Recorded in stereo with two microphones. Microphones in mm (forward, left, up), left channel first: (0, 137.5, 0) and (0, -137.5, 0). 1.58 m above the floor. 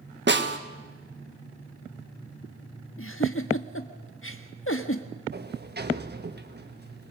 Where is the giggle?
50° left (ahead or behind), 1.4 m.